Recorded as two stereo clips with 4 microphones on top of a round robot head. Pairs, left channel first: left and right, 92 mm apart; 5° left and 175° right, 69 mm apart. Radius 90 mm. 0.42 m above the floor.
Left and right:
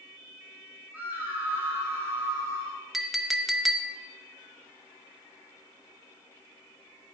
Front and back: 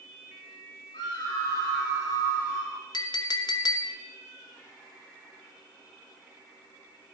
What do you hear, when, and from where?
0.9 s a scream: 15° right, 5.5 m; by 2.8 s 40° right, 5.5 m
2.9 s a clink: straight ahead, 0.7 m